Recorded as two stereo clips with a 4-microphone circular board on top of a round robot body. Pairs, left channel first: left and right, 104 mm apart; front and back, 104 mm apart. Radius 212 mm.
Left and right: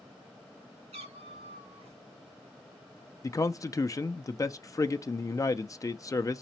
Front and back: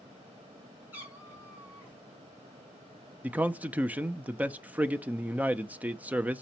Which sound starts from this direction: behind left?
A man speaking, at 3.2 s.